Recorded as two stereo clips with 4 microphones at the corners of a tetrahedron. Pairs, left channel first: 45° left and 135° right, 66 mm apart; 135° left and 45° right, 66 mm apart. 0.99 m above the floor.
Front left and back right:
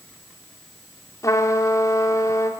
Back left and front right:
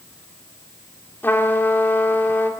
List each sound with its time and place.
1.2 s a trumpet: 75° left, 2.5 m